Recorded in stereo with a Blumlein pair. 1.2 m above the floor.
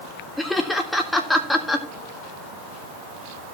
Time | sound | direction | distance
0.4 | laughter | 5° left | 1.7 m